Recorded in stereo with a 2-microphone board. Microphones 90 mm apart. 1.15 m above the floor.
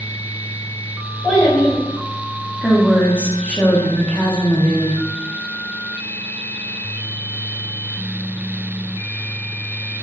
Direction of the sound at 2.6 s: 15° left (ahead or behind).